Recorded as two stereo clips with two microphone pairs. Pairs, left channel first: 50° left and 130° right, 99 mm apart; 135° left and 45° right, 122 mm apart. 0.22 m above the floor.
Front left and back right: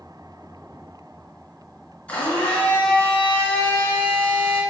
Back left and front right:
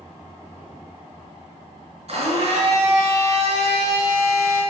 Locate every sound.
2.1 s a blender: 25° right, 3 m